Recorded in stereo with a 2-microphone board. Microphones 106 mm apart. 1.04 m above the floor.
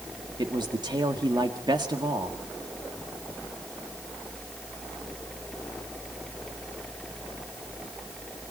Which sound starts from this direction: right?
A man speaking, at 0.4 s.